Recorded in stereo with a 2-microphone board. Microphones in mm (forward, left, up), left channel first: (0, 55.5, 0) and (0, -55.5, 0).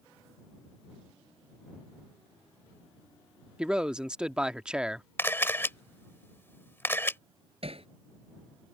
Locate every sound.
3.6 s a man speaking: 10° right (ahead or behind)
5.2 s a camera shutter: 20° left (ahead or behind)
7.6 s hammering: 60° right (ahead or behind)